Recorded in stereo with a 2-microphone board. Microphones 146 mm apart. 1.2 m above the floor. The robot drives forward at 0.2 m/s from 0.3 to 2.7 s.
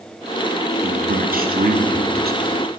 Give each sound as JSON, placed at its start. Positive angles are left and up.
{"t": 0.8, "sound": "a man speaking", "side_deg": -60, "distance_m": 0.7}